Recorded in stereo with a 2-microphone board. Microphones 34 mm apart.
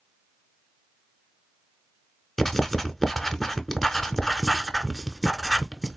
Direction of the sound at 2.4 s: 10° left (ahead or behind).